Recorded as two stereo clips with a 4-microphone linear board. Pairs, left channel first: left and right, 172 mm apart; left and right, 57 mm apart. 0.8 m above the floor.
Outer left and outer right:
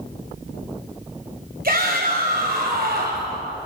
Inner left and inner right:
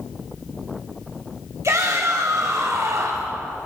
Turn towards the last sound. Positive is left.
turn(degrees=-60)  # may be behind; listen again after turning